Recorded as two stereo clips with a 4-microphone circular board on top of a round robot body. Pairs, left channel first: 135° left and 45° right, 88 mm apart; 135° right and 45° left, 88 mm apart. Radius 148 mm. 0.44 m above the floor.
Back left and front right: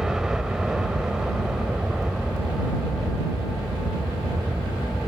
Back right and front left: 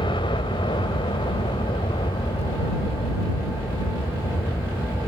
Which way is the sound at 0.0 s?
125° right.